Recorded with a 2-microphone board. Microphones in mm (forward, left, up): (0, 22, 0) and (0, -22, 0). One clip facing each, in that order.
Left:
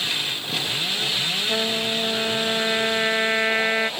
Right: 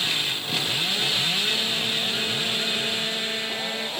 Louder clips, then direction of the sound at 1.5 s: Left 2 dB; 60° left (ahead or behind).